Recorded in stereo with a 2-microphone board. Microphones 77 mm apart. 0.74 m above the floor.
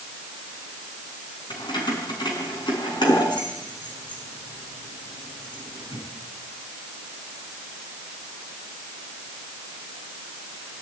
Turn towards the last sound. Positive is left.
turn(degrees=75)  # may be behind; listen again after turning